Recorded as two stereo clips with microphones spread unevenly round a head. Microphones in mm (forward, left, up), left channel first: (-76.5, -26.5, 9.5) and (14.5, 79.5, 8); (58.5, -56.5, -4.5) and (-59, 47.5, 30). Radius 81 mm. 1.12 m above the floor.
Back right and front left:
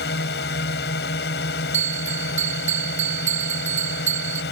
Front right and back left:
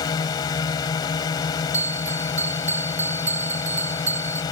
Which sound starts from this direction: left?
A bell, at 1.7 s.